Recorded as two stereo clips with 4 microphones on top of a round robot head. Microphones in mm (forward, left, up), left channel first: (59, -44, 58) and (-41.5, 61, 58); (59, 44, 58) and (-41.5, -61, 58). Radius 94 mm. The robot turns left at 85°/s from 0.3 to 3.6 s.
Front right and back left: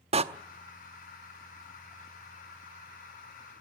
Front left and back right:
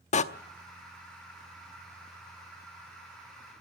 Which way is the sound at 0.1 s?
85° left.